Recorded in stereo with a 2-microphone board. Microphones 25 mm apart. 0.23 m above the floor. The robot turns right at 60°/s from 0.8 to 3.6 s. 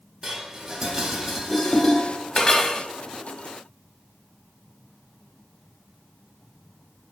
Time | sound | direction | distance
0.2 | dishes clattering | 20° right (ahead or behind) | 0.8 m